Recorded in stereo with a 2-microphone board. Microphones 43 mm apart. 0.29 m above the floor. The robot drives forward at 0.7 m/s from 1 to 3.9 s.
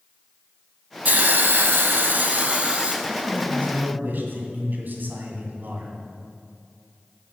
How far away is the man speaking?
About 2.5 m.